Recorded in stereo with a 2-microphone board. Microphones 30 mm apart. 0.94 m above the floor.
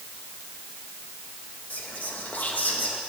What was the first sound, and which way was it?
Whispering, 60° left (ahead or behind).